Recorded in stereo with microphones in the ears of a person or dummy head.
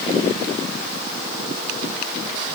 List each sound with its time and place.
Only background noise.